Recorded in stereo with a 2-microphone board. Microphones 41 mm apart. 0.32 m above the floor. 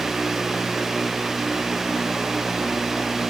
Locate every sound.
Only background noise.